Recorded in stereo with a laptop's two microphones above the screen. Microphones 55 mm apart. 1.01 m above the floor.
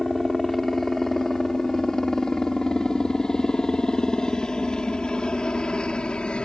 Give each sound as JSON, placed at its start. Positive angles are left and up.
{"t": 0.0, "sound": "a helicopter", "side_deg": 5}